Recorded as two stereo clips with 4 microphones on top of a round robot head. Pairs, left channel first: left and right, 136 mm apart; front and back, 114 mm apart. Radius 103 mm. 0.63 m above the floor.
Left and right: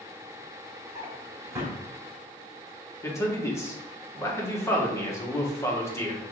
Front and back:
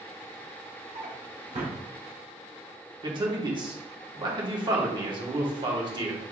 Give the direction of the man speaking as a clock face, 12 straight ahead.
7 o'clock.